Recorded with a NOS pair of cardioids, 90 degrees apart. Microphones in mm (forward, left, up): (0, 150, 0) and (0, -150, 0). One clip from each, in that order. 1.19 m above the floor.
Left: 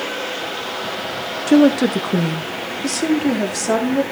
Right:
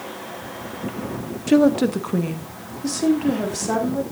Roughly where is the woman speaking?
Ahead.